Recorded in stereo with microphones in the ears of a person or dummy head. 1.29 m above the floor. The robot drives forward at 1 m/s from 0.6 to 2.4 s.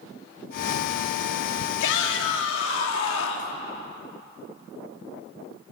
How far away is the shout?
About 2.5 m.